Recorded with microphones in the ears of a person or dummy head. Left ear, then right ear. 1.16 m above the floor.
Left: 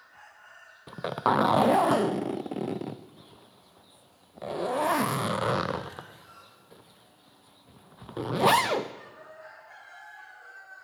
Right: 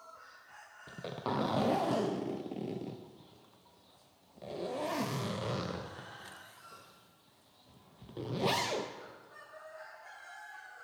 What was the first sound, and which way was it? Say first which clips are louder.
A zipper: left 12 dB; 55° left (ahead or behind).